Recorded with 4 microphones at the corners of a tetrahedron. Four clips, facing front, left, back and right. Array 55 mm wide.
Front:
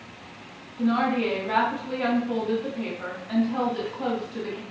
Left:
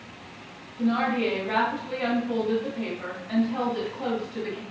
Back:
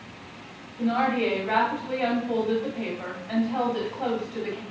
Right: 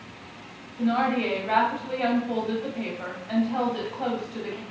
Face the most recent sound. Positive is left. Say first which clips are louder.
# even, even
turn(degrees=-150)